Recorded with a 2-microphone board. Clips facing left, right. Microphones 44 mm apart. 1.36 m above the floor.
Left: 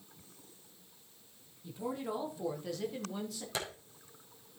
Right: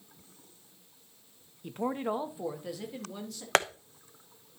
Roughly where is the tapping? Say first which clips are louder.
Right 13 dB; right.